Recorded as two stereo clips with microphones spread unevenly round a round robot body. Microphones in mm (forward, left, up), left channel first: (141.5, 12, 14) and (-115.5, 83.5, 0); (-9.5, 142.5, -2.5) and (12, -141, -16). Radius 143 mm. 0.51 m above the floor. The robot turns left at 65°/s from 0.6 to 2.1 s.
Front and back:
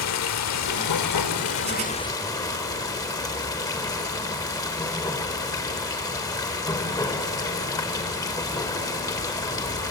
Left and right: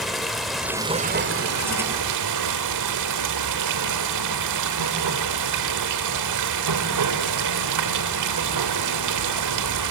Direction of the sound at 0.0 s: 5° left.